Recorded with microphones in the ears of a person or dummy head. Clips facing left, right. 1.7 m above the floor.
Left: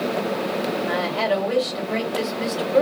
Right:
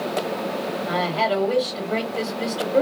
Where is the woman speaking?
10° left (ahead or behind), 1.6 m.